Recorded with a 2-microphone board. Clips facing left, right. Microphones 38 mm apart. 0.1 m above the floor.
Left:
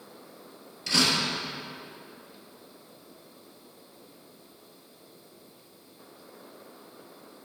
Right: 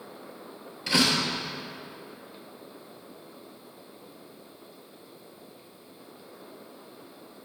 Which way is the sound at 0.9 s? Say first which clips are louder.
Right 1 dB; 20° right (ahead or behind).